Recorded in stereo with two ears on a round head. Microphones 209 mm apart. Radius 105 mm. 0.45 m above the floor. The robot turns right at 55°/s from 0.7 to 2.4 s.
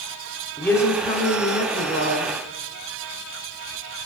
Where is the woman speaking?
15° left, 1.1 m; by 2.3 s 100° left, 1.1 m.